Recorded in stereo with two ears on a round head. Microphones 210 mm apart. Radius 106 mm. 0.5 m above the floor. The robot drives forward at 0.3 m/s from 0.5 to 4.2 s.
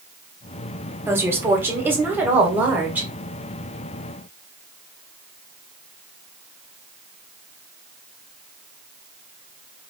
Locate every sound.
1.1 s a woman speaking: 10° right (ahead or behind), 1.1 m